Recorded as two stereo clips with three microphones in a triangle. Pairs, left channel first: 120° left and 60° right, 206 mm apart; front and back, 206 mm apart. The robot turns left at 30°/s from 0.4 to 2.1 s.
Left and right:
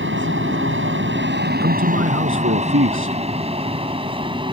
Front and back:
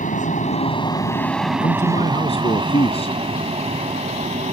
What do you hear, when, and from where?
0.0 s an aircraft: 50° right; by 4.5 s 125° right
1.6 s a man speaking: 45° right; by 3.2 s 60° right